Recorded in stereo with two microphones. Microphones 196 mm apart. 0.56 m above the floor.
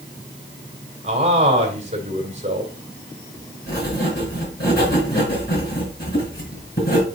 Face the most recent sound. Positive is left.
turn(degrees=50)  # may be behind; listen again after turning